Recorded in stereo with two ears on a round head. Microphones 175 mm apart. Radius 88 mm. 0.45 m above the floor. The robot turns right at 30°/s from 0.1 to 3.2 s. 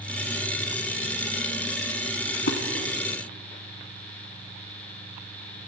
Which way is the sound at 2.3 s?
65° left (ahead or behind).